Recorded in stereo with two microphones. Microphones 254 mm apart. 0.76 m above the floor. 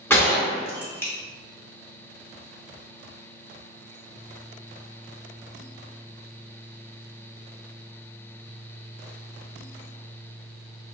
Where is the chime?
No chime in this recording.